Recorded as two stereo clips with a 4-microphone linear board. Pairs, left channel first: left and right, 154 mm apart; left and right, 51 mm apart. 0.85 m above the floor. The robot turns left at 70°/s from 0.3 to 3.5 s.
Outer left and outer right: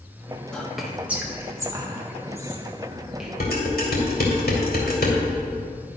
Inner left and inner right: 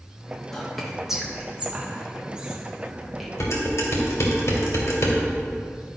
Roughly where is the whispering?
Centre.